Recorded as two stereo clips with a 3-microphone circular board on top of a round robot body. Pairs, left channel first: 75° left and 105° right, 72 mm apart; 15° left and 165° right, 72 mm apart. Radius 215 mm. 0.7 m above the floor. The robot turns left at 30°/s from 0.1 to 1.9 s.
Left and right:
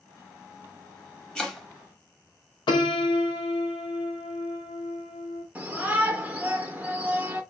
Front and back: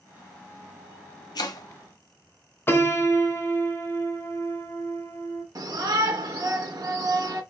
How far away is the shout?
About 1.0 m.